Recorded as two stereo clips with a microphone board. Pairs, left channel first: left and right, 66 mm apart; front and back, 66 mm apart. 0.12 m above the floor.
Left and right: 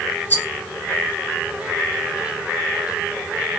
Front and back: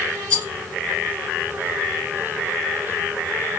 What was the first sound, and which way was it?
A rattle, 55° left.